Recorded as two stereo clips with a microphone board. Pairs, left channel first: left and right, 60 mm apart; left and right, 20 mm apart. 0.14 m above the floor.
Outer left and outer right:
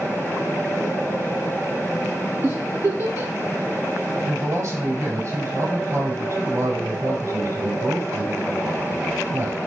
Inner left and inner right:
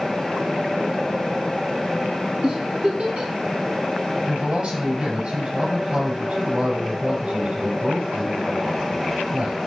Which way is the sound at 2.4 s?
50° right (ahead or behind).